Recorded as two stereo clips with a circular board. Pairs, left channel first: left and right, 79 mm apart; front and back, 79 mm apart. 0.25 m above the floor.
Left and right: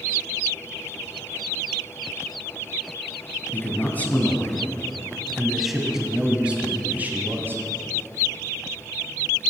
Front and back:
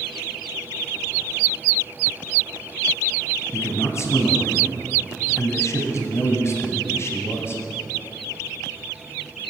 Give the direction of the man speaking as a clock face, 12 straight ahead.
11 o'clock.